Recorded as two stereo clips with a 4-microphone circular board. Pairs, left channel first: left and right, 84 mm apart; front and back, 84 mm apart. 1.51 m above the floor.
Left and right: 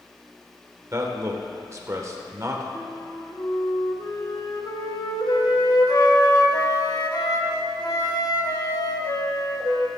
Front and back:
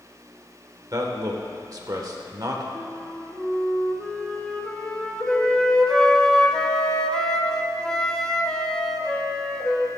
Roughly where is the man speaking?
Behind right.